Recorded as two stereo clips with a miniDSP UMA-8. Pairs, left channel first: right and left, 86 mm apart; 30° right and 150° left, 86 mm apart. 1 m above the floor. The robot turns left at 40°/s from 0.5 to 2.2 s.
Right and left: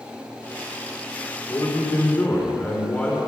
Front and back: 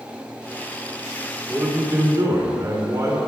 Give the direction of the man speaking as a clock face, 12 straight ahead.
4 o'clock.